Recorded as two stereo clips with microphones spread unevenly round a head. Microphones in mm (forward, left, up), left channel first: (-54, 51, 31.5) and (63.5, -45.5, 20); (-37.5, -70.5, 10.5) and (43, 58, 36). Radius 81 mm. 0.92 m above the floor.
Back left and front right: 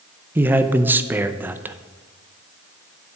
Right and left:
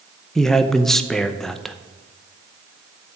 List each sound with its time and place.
0.3 s a man speaking: 70° right, 0.6 m